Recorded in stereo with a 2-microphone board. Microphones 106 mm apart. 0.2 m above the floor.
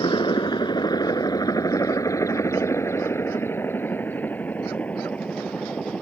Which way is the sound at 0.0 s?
45° left (ahead or behind).